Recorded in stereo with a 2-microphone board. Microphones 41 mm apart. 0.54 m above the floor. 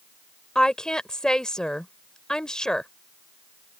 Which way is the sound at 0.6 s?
15° left (ahead or behind).